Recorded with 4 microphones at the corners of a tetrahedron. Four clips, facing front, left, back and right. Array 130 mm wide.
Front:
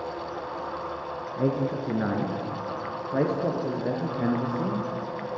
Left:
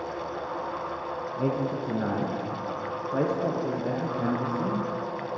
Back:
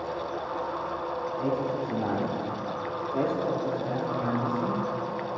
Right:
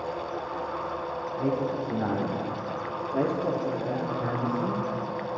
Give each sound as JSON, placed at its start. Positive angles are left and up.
{"t": 1.4, "sound": "a man speaking", "azimuth_deg": 25, "distance_m": 5.5}